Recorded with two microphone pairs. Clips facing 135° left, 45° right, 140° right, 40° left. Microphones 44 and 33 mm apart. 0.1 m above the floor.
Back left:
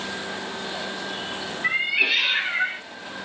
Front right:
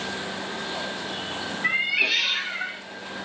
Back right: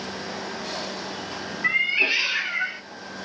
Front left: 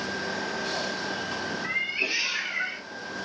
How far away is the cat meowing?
About 0.7 m.